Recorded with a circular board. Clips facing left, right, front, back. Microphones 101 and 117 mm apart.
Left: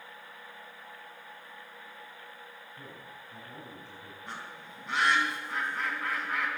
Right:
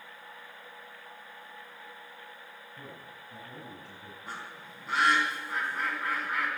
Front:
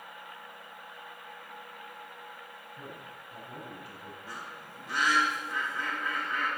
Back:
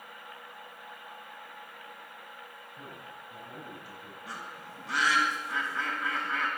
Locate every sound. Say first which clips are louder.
2.8 s a man speaking: right 2 dB, even; 115° right, 7.5 m
4.3 s a bird: right 1 dB, back 4 dB; 175° right, 4 m